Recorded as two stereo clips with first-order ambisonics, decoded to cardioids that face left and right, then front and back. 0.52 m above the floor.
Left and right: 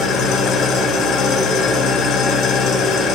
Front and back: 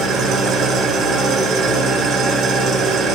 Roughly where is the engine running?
Behind left.